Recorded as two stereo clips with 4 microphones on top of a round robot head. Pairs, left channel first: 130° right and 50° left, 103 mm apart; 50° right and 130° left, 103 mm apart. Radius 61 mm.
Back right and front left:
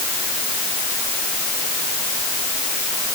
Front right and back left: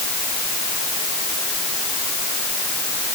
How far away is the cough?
No cough in this recording.